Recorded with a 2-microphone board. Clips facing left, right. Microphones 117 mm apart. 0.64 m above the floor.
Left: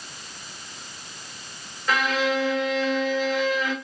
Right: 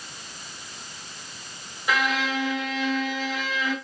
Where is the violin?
15° right (ahead or behind), 1.1 m.